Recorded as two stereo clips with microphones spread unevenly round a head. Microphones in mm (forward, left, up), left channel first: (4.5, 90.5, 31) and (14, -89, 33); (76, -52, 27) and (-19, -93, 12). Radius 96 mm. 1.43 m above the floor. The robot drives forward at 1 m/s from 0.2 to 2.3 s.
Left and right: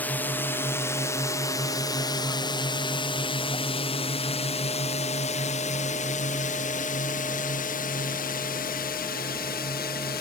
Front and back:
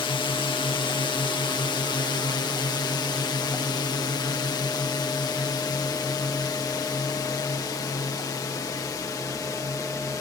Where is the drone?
15° left; by 10.2 s 90° left.